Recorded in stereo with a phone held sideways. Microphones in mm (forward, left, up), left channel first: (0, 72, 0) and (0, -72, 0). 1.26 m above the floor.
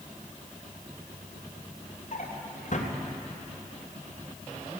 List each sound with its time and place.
2.1 s a drawer: 60° left (ahead or behind), 3.5 m